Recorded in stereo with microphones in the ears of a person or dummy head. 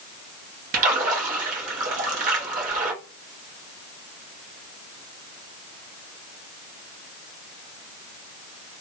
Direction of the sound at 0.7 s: 40° right (ahead or behind).